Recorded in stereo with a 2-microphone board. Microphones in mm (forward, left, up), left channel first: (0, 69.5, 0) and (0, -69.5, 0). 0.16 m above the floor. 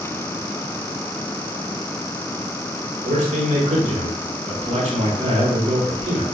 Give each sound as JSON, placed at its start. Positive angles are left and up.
{"t": 3.0, "sound": "a man speaking", "side_deg": -50, "distance_m": 1.9}